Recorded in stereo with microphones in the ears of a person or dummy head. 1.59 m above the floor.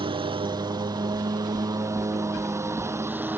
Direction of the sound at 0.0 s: 20° right (ahead or behind).